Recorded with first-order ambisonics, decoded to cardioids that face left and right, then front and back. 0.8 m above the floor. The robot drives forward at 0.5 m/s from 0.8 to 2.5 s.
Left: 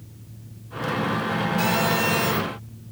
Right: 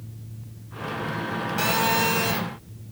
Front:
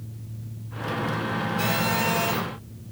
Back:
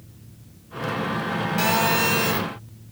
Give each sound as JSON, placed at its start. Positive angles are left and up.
{"t": 1.6, "sound": "a phone buzzing", "azimuth_deg": -150, "distance_m": 2.0}